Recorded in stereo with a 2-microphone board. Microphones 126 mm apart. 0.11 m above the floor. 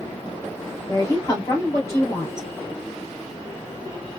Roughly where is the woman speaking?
Left.